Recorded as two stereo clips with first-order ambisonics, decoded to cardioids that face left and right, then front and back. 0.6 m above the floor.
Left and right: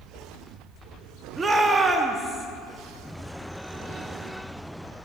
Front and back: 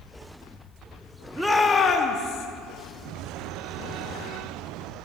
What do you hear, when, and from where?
1.4 s a shout: 115° right, 0.6 m; by 2.5 s 5° right, 0.8 m